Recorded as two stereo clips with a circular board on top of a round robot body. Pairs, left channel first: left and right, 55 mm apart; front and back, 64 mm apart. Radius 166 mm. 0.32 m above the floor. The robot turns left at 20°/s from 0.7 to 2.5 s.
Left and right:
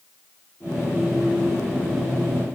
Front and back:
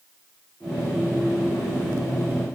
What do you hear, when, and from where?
Only background noise.